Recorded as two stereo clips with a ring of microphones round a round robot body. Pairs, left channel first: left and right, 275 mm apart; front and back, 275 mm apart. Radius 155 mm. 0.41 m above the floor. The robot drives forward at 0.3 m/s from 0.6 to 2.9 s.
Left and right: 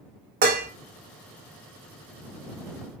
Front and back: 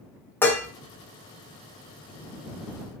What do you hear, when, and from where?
0.4 s dishes clattering: 75° right, 0.6 m; by 0.7 s 80° right, 0.6 m